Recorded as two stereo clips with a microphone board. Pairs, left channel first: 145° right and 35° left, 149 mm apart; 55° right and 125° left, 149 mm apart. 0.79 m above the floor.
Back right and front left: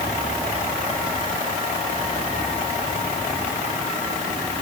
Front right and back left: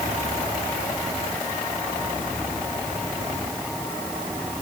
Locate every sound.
Only background noise.